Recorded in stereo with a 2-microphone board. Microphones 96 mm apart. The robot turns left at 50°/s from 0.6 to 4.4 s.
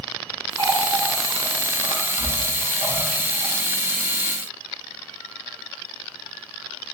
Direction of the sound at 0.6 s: 40° right (ahead or behind).